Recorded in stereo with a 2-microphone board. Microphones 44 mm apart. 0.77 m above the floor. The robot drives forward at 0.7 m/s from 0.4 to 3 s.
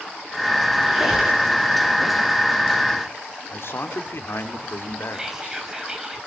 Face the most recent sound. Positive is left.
turn(degrees=-15)  # may be behind; listen again after turning